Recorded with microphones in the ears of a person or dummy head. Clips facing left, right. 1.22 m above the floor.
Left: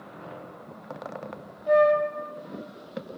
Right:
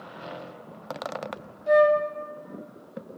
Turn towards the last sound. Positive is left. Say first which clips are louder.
# right 1 dB
turn(degrees=-20)  # may be behind; listen again after turning